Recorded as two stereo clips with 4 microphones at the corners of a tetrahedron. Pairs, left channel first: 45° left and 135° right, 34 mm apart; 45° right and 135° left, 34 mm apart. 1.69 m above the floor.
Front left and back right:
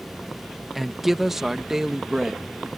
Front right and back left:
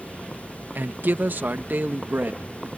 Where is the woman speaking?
140° left; by 2.7 s 155° left.